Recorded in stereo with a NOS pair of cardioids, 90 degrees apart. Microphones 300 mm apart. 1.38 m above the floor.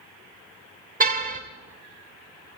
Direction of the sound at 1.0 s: 30° right.